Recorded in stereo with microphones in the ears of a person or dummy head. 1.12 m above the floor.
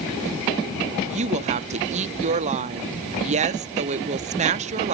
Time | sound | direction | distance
1.1 | a woman speaking | 40° right (ahead or behind) | 0.7 m